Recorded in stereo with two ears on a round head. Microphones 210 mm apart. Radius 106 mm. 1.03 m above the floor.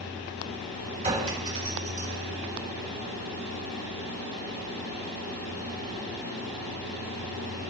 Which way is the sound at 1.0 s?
25° right (ahead or behind).